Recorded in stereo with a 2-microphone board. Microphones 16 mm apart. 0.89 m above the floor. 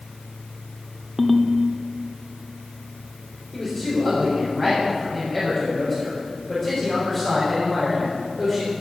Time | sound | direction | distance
1.2 | a ringtone | centre (ahead or behind) | 1.0 m
3.5 | a man speaking | centre (ahead or behind) | 3.5 m